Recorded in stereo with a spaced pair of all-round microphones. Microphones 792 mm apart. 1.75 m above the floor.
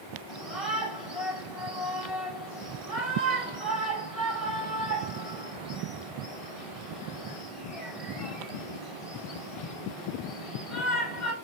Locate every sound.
0.3 s a shout: 45° left (ahead or behind), 6 m